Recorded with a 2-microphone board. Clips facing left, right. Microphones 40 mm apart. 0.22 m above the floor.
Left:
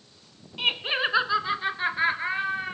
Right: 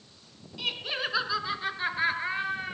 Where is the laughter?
40° left (ahead or behind), 1.7 m; by 2.8 s 10° left (ahead or behind), 3.5 m.